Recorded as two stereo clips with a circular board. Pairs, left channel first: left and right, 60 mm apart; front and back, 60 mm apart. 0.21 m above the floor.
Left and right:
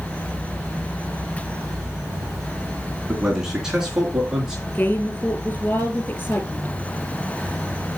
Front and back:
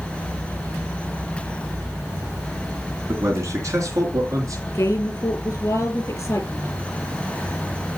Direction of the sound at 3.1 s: 170° right.